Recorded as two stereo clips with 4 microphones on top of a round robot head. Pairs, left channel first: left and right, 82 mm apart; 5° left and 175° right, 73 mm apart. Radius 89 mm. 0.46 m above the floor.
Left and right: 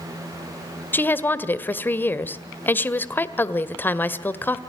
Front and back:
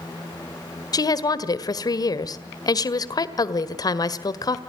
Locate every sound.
0.9 s a woman speaking: 25° left, 1.8 m